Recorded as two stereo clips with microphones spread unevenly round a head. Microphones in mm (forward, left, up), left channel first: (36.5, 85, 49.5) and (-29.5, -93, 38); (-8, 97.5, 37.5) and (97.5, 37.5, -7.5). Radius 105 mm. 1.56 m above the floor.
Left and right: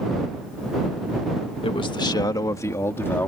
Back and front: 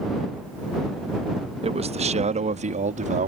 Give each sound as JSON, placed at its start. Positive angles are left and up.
{"t": 1.6, "sound": "a man speaking", "azimuth_deg": 5}